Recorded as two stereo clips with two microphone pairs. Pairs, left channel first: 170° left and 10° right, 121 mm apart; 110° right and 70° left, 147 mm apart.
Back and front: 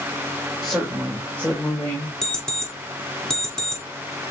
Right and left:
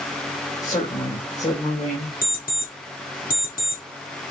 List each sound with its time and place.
0.6 s a woman speaking: 105° right, 2.5 m; by 2.1 s 120° right, 2.5 m
2.2 s an alarm clock: 105° right, 3.5 m